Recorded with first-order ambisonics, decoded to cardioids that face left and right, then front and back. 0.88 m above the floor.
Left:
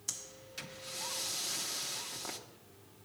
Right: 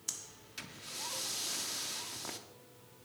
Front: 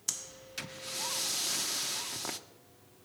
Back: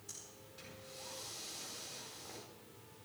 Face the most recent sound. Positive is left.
turn(degrees=0)